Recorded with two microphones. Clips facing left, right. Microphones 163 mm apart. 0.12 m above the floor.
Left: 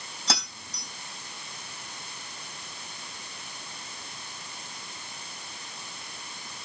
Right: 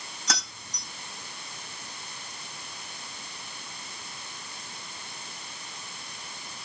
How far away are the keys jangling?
About 3.5 m.